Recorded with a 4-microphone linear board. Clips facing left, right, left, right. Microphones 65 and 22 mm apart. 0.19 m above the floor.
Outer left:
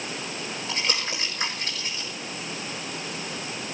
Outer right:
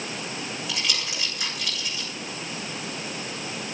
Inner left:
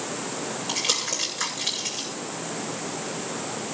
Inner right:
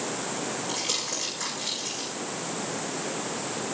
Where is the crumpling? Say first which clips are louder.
Outer left 3 dB, inner left 6 dB; 40° left (ahead or behind), 8.5 m.